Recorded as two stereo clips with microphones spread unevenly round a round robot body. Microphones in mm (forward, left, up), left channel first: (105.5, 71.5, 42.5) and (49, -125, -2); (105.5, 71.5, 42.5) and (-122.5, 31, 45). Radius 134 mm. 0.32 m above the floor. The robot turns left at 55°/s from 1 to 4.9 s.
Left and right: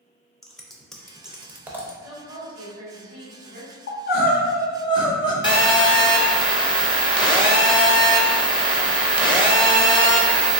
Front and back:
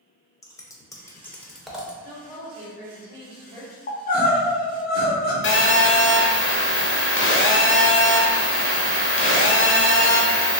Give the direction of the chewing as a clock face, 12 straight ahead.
I don't hear chewing.